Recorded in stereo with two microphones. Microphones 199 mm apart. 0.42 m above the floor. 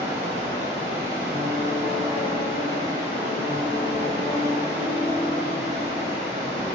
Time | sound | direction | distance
0.0 | running water | 15° right (ahead or behind) | 0.9 m
1.3 | a piano | 20° left (ahead or behind) | 0.6 m